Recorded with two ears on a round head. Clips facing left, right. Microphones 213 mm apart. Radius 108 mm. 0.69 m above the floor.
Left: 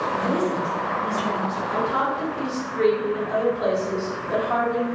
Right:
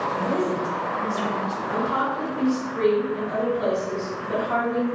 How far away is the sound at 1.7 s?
About 1.7 m.